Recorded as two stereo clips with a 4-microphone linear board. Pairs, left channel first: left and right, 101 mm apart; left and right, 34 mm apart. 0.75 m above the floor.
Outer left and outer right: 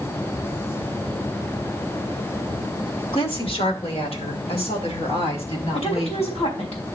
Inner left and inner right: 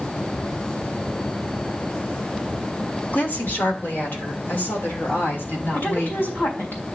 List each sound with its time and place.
3.1 s a woman speaking: 70° left (ahead or behind), 2 m; by 6.4 s 85° left, 7 m
5.7 s a woman speaking: 85° left, 4 m